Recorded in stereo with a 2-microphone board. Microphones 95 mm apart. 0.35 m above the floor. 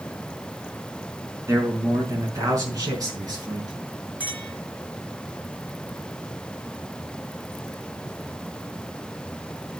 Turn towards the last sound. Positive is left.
turn(degrees=-15)  # may be behind; listen again after turning